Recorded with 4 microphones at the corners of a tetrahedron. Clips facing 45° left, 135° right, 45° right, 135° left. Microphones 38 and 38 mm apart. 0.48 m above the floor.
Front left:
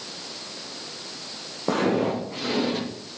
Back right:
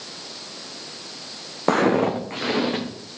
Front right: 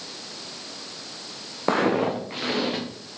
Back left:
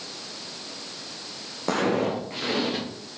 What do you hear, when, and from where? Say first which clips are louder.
1.7 s footsteps: back right 4 dB, front right 2 dB; 105° right, 1.5 m; by 2.8 s 115° right, 3 m